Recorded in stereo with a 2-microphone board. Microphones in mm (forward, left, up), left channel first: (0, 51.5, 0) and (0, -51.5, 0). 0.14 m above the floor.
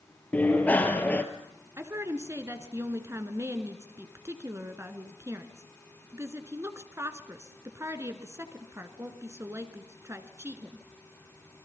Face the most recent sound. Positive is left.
turn(degrees=-25)  # may be behind; listen again after turning